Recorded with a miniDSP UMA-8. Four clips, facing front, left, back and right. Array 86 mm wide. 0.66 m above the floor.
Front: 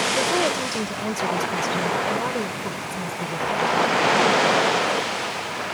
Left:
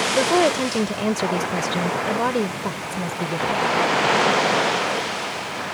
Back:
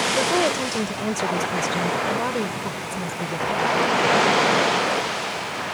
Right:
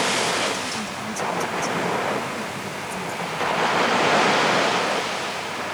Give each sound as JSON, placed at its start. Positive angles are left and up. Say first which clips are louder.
{"t": 0.1, "sound": "a woman speaking", "louder": "left 6 dB, back 2 dB", "azimuth_deg": 100}